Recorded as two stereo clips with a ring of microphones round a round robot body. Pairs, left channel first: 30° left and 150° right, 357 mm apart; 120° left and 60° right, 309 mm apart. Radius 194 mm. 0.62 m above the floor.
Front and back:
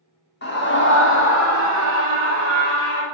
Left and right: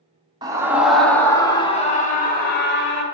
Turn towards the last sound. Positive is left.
turn(degrees=75)